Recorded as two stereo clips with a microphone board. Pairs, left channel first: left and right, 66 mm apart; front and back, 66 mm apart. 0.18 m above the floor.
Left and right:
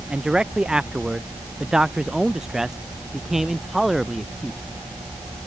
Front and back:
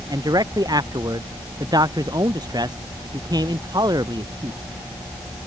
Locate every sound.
0.1 s a man speaking: 165° right; by 4.6 s 175° right